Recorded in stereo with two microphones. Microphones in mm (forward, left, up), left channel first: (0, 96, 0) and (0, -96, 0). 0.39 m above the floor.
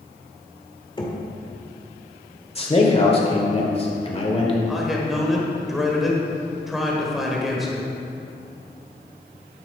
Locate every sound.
1.0 s knocking: 25° left (ahead or behind), 1.0 m
2.5 s a man speaking: 30° left (ahead or behind), 1.2 m
4.7 s a man speaking: centre (ahead or behind), 1.2 m